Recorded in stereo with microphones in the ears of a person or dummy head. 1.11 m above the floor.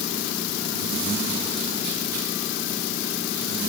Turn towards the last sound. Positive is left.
No sound to turn to.